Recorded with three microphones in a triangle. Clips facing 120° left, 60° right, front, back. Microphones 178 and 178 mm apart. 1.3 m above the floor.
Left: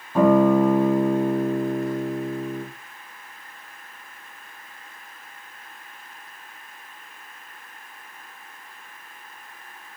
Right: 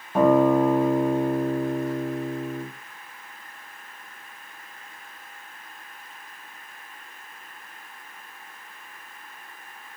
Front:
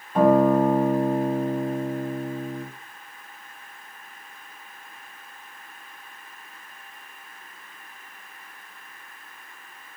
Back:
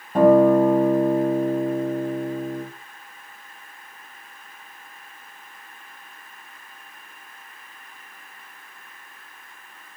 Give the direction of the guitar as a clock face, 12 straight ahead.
4 o'clock.